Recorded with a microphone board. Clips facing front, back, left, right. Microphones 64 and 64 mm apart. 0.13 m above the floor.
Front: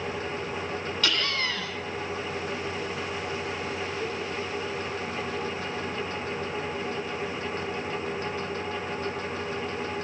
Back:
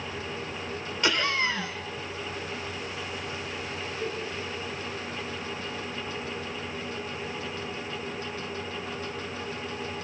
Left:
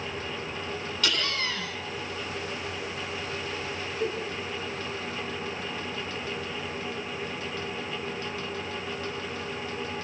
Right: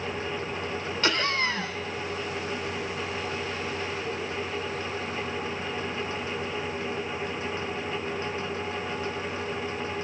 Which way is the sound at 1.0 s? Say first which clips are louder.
Back 4 dB, right 4 dB; 125° right.